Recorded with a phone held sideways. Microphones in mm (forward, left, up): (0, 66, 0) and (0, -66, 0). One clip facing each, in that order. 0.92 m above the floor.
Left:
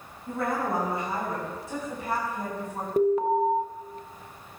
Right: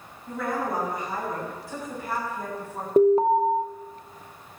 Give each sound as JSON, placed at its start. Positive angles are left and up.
{"t": 0.3, "sound": "a woman speaking", "side_deg": 30, "distance_m": 6.5}
{"t": 3.0, "sound": "an alarm", "side_deg": -30, "distance_m": 0.8}